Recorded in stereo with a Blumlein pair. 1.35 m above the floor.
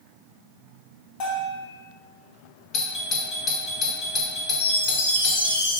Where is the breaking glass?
I don't hear breaking glass.